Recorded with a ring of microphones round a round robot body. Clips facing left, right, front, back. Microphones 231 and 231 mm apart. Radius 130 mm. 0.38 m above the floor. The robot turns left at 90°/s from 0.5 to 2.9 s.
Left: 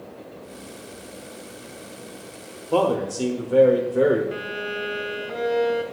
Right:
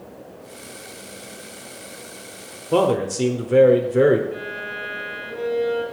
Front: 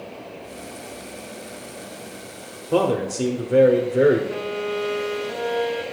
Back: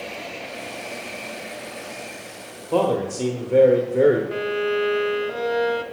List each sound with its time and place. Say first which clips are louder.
2.7 s a man speaking: right 2 dB, front 1 dB; 55° right, 1.0 m; by 4.2 s 70° right, 1.0 m
4.3 s a violin: left 2 dB, back 3 dB; 115° left, 0.9 m